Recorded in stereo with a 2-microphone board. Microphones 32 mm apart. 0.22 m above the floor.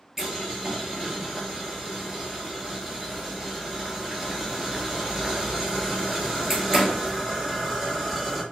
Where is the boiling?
10° right (ahead or behind), 0.9 m.